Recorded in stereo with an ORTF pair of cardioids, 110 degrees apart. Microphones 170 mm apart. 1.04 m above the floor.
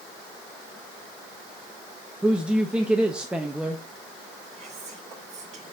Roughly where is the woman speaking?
Ahead.